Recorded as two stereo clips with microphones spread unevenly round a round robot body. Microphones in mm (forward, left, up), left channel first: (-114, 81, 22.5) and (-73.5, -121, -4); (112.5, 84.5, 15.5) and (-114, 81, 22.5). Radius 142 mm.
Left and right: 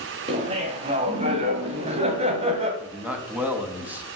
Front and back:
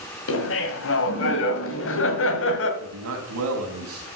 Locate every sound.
0.3 s laughter: 20° right, 2.5 m
2.8 s a man speaking: 160° right, 3.5 m